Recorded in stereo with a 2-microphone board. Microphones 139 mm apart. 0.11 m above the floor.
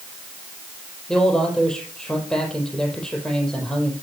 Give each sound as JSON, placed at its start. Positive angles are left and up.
{"t": 1.1, "sound": "a man speaking", "side_deg": 5, "distance_m": 4.5}